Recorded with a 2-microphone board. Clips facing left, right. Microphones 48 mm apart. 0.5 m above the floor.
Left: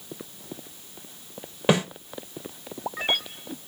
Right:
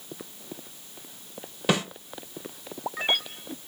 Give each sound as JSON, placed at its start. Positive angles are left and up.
{"t": 1.7, "sound": "a snare drum", "side_deg": 25, "distance_m": 1.3}